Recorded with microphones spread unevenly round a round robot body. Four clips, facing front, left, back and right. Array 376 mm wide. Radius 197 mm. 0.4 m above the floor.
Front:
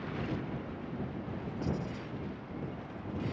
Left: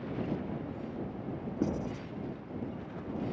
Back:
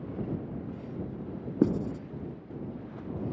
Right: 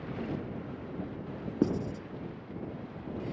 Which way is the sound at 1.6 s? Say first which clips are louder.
Right 4 dB, back 12 dB; 170° right.